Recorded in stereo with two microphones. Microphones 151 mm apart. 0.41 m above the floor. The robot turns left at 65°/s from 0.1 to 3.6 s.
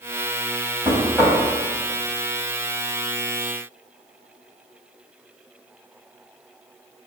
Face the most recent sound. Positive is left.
turn(degrees=20)